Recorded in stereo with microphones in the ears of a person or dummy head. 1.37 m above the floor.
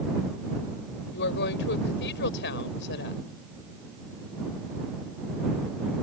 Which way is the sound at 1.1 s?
60° left (ahead or behind).